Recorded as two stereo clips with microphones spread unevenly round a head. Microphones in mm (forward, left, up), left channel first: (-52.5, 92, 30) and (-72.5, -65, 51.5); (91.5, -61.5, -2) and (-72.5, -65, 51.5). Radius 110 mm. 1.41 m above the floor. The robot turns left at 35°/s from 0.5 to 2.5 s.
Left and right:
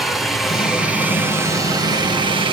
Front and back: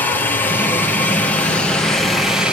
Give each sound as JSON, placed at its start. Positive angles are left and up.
{"t": 0.0, "sound": "a helicopter", "azimuth_deg": 5}